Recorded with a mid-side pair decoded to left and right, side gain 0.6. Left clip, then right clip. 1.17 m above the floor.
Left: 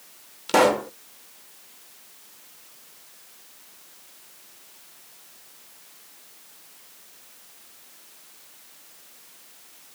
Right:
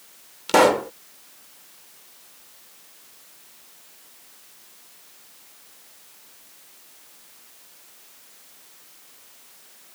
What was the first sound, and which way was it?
A pop, 15° right.